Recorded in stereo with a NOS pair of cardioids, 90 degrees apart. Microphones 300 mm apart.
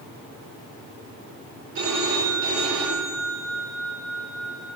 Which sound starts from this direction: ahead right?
A phone ringing, at 1.8 s.